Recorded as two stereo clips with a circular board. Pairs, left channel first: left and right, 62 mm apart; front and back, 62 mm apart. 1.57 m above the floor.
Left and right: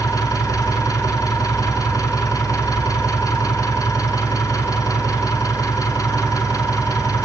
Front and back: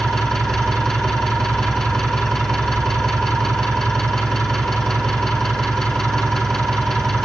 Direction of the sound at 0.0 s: 80° left.